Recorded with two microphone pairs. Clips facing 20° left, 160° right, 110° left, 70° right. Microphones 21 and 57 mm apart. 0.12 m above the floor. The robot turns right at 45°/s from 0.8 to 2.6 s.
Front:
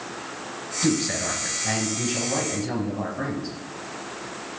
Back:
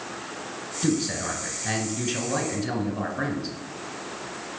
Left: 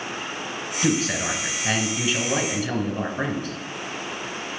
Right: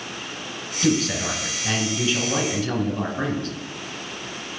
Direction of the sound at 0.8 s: 105° left.